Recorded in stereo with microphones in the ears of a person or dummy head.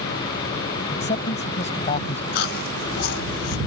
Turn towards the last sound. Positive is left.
turn(degrees=50)  # may be behind; listen again after turning